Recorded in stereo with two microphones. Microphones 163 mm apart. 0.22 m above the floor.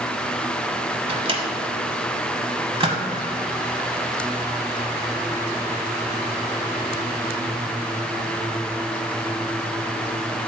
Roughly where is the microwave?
Right.